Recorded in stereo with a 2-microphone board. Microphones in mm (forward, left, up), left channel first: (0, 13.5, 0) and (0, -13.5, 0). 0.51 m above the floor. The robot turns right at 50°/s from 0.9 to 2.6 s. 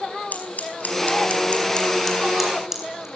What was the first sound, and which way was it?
Scissors, 65° left (ahead or behind).